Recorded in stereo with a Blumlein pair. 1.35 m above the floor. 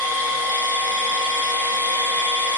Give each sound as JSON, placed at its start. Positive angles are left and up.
{"t": 0.0, "sound": "a machine running", "azimuth_deg": 65, "distance_m": 0.7}